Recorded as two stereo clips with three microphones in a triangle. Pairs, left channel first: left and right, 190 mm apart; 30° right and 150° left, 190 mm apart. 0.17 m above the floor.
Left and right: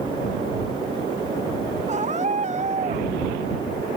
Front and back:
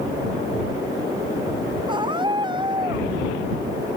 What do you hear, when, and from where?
1.9 s a scream: 145° right